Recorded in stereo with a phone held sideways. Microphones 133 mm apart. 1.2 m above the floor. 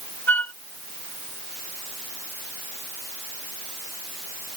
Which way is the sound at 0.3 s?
15° left (ahead or behind).